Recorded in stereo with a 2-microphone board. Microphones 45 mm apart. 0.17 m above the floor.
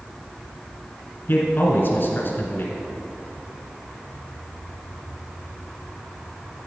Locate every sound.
1.3 s a man speaking: 50° left (ahead or behind), 1.6 m